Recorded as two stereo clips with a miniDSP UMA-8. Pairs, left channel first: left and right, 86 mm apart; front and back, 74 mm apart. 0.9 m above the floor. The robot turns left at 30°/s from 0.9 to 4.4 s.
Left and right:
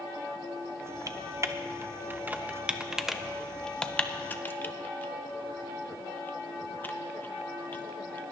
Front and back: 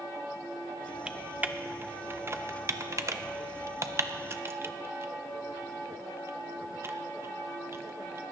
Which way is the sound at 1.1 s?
110° right.